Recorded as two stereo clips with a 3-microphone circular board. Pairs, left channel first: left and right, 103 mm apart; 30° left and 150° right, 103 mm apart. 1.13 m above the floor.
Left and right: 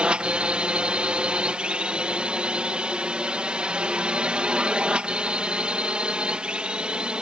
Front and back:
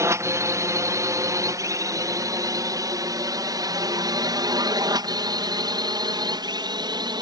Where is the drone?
160° right; by 7.2 s 170° right.